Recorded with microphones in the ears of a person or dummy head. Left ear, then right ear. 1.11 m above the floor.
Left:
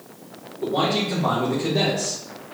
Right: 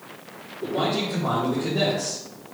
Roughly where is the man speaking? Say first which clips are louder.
Left 3 dB; left.